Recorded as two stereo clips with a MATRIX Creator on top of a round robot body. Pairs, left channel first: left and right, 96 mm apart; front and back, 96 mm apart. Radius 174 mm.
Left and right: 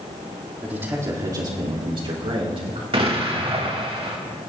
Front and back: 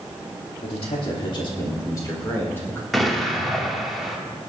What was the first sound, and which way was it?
A man speaking, 15° right.